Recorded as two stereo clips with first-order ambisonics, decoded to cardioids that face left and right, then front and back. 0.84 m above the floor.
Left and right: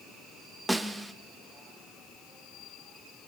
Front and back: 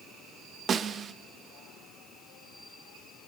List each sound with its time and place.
0.7 s a snare drum: 170° right, 0.8 m